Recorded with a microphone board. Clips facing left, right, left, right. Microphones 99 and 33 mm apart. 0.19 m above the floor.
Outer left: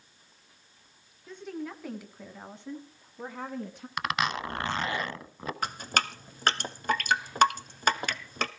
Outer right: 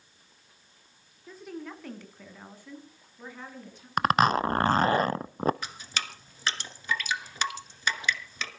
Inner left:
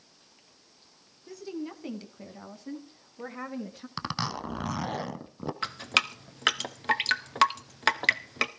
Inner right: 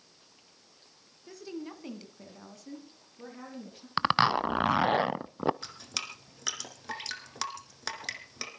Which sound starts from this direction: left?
Dripping, at 5.6 s.